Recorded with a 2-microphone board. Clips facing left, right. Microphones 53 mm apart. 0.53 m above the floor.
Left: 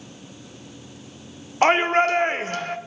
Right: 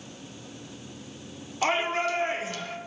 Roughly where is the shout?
Left.